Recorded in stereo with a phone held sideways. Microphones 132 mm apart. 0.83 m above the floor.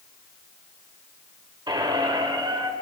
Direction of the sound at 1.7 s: 35° right (ahead or behind).